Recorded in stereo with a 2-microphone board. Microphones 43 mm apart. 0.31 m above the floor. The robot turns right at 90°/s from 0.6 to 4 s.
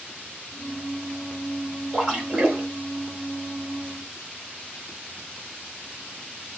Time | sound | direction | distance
1.9 | a splash | 165° left | 2 m